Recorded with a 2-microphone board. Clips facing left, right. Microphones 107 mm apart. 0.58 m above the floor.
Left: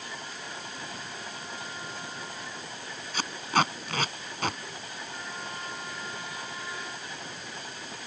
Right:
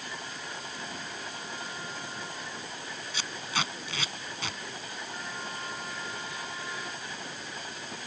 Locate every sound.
3.1 s tape being pulled: 50° left (ahead or behind)